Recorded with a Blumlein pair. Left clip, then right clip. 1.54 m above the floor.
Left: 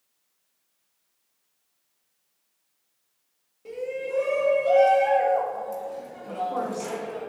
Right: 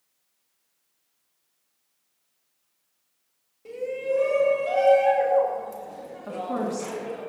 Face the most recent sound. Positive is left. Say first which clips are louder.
# left 1 dB
turn(degrees=-50)